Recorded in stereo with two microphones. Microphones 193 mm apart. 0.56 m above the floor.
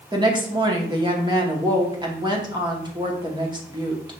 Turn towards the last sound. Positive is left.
turn(degrees=-25)  # may be behind; listen again after turning